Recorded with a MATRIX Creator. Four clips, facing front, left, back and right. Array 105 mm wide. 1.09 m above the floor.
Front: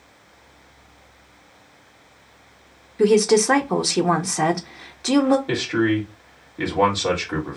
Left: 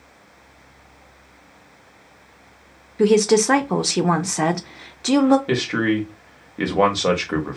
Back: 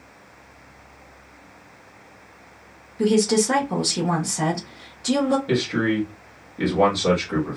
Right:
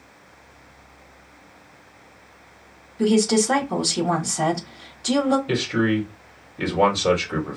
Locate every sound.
3.0 s a woman speaking: 55° left, 0.9 m
5.5 s a man speaking: 85° left, 1.7 m